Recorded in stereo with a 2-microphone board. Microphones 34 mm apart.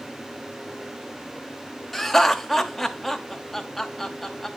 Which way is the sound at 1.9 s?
5° left (ahead or behind).